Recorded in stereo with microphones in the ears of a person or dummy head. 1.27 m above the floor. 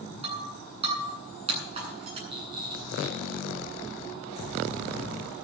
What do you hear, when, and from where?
0.2 s breaking glass: 30° right (ahead or behind), 9 m
2.3 s a rattle: 25° right (ahead or behind), 7 m